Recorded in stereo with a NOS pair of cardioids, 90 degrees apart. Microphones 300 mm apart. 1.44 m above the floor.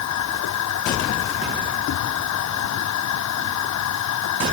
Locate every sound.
0.0 s a machine running: 65° left